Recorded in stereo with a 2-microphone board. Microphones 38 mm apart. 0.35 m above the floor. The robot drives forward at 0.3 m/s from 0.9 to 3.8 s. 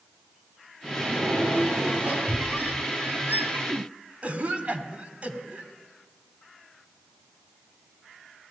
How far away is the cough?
About 1.9 m.